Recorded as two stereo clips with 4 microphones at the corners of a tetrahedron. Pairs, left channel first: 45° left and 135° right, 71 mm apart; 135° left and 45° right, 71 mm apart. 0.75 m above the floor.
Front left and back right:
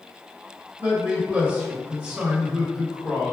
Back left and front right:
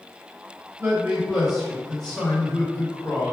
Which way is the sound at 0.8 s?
85° right.